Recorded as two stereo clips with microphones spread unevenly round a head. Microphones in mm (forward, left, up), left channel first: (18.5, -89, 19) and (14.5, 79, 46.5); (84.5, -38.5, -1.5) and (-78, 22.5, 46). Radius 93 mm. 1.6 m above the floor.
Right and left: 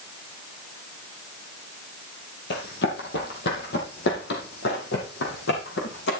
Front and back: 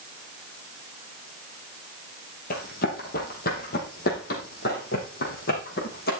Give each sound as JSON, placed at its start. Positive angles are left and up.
{"t": 2.5, "sound": "running footsteps", "azimuth_deg": -65, "distance_m": 3.0}